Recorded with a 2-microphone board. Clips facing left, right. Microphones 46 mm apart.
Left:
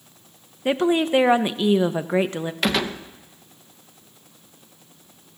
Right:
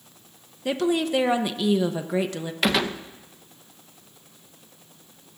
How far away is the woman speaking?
About 0.7 m.